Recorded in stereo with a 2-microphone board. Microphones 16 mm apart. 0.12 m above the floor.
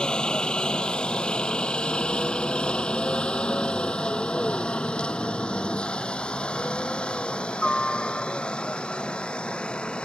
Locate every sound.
0.0 s a helicopter: 60° left (ahead or behind); by 10.1 s 75° left (ahead or behind)